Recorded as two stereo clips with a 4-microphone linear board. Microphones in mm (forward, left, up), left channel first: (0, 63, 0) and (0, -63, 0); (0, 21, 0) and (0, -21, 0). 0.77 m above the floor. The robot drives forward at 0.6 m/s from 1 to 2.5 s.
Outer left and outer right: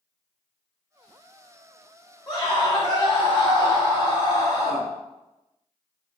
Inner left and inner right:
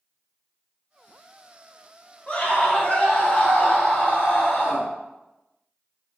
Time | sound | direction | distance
2.3 | a scream | 30° left (ahead or behind) | 2 m